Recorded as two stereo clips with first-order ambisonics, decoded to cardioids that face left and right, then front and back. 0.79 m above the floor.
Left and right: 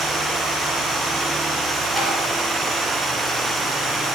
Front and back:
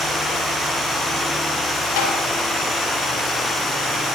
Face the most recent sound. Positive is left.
turn(degrees=0)